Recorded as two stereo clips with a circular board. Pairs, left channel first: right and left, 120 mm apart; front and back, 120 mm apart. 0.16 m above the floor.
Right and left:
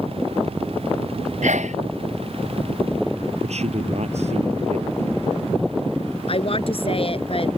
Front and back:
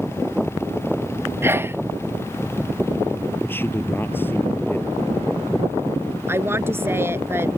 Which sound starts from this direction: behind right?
A woman speaking, at 6.3 s.